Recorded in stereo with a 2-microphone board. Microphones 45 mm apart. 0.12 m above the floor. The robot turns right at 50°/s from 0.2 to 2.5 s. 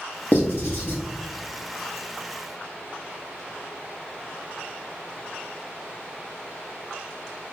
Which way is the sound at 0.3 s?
40° left (ahead or behind).